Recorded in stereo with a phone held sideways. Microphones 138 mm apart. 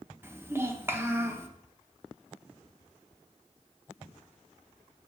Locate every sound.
0.2 s a child speaking: 15° right (ahead or behind), 0.9 m